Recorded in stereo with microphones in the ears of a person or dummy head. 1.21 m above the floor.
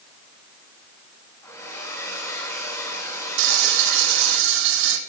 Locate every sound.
1.4 s a hair dryer: 20° left (ahead or behind), 7 m
3.4 s frying: 75° right (ahead or behind), 4.5 m